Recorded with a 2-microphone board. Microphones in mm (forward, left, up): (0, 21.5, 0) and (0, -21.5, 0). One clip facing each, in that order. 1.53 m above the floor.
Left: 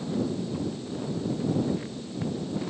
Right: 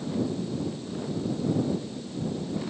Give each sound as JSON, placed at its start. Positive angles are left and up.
{"t": 0.5, "sound": "footsteps", "side_deg": 75}